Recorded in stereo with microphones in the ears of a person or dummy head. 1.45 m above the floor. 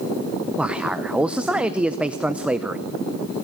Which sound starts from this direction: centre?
A man speaking, at 0.6 s.